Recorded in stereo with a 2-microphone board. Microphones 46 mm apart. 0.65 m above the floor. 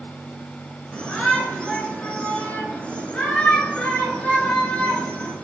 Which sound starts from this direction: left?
A shout, at 0.9 s.